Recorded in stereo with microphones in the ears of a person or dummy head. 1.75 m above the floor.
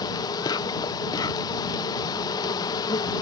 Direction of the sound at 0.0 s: 20° left (ahead or behind).